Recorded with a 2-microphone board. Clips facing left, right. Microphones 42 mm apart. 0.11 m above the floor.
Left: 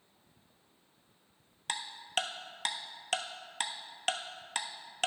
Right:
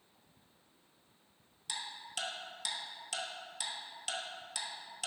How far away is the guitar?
I don't hear a guitar.